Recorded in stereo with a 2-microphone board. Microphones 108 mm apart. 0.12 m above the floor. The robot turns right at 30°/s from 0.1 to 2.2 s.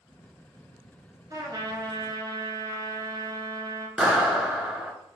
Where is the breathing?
No breathing in this recording.